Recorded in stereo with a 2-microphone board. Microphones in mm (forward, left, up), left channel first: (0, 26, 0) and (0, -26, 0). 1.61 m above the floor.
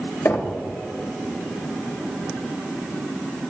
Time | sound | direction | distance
0.2 | knocking | 60° left (ahead or behind) | 1.2 m